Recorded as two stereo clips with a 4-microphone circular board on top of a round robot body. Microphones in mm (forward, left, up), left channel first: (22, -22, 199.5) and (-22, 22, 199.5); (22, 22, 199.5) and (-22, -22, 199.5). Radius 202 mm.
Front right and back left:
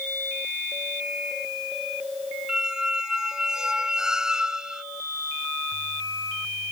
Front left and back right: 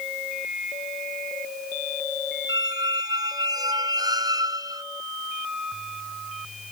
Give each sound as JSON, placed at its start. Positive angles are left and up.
{"t": 2.5, "sound": "a squeak", "azimuth_deg": -145}